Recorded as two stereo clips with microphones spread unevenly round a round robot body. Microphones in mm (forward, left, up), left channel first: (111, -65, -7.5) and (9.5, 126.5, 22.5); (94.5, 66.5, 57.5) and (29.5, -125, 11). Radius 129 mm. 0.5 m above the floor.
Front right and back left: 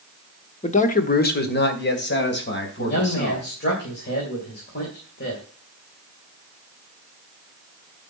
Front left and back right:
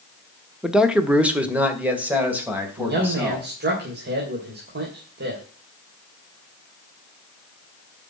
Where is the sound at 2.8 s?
105° right, 3 m.